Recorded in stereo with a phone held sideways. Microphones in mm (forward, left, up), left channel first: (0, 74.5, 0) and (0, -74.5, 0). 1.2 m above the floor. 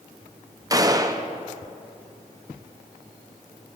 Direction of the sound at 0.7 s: 25° right (ahead or behind).